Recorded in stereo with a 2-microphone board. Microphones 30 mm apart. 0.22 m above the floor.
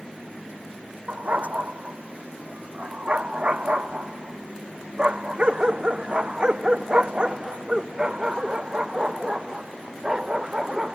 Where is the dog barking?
55° right (ahead or behind); by 11.0 s 25° right (ahead or behind).